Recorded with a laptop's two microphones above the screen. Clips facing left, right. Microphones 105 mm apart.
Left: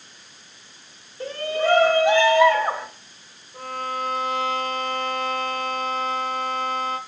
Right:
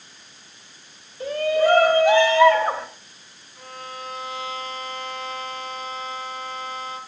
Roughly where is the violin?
Left.